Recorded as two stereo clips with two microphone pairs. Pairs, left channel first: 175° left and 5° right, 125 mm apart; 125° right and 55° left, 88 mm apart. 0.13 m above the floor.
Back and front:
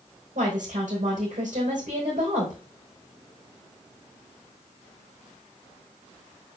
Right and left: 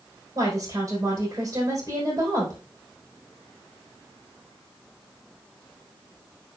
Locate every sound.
0.3 s a woman speaking: straight ahead, 5 m